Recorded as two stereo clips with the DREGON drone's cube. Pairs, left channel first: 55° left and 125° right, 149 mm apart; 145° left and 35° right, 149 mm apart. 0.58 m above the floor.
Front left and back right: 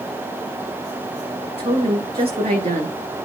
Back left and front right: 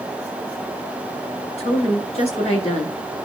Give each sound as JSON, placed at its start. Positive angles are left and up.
{"t": 1.6, "sound": "a woman speaking", "azimuth_deg": -170, "distance_m": 6.5}